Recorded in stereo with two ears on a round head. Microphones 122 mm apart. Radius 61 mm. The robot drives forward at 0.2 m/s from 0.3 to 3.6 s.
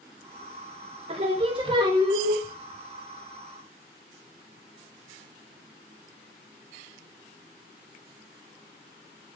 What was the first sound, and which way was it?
Singing, 45° right (ahead or behind).